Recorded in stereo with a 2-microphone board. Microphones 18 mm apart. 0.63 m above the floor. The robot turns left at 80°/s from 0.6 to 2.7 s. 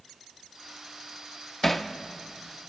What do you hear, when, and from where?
1.6 s hammering: 15° left (ahead or behind), 0.6 m; by 1.9 s centre (ahead or behind), 0.6 m